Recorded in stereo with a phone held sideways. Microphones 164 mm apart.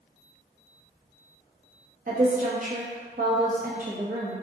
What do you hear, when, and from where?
2.1 s a woman speaking: 55° right (ahead or behind), 1.2 m